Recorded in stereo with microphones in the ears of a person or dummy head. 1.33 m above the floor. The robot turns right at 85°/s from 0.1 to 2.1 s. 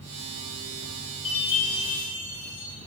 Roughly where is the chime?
Left.